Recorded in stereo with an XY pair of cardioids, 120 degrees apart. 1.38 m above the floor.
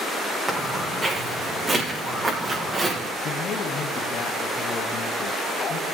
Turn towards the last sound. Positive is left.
turn(degrees=55)